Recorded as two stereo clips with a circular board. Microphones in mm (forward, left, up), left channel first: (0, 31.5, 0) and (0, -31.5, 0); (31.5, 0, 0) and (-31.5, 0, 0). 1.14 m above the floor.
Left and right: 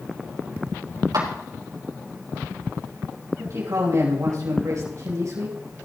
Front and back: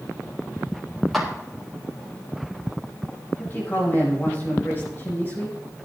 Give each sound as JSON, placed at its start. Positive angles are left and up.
{"t": 1.1, "sound": "a clap", "azimuth_deg": -90, "distance_m": 5.0}
{"t": 3.4, "sound": "a man speaking", "azimuth_deg": -55, "distance_m": 4.5}